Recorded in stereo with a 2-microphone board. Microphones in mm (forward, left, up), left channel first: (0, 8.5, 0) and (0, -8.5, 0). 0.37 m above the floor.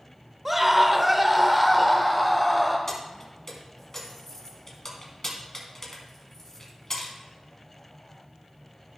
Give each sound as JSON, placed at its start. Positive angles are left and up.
{"t": 0.5, "sound": "a scream", "side_deg": -20, "distance_m": 1.0}
{"t": 2.9, "sound": "keys jangling", "side_deg": 20, "distance_m": 2.5}